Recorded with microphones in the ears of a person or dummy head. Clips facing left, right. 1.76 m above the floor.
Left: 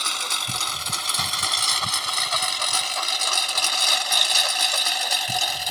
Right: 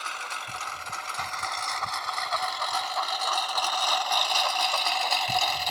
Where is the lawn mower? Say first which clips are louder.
Left 4 dB; 65° left (ahead or behind); by 5.7 s 15° left (ahead or behind).